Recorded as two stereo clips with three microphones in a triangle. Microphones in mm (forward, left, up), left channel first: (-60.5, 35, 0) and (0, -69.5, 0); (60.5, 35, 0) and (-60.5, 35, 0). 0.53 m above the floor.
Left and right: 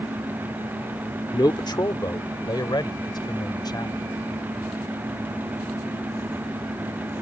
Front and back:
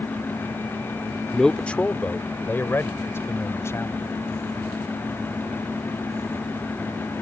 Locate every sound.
1.3 s a man speaking: 85° left; by 4.0 s 65° left